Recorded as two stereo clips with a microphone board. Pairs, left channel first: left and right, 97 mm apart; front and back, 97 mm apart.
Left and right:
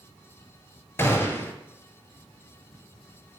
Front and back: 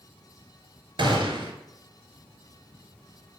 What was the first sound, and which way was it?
A gunshot, 150° left.